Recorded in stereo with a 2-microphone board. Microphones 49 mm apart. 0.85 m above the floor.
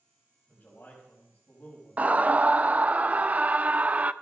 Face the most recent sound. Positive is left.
turn(degrees=-30)  # may be behind; listen again after turning